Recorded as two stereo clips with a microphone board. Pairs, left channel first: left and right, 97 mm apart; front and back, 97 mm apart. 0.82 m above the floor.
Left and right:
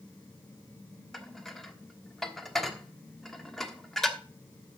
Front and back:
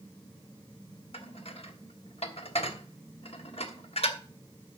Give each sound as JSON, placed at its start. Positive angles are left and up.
{"t": 1.1, "sound": "dishes clattering", "azimuth_deg": 5, "distance_m": 1.1}